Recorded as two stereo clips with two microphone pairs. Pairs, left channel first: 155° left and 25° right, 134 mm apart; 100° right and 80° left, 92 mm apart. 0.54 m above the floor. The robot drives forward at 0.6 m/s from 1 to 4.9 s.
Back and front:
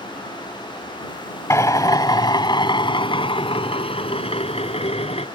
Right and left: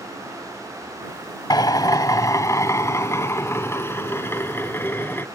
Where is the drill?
140° right; by 5.2 s 165° right.